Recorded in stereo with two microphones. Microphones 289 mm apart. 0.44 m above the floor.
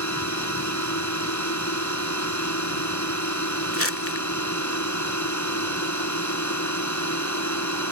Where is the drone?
70° left (ahead or behind).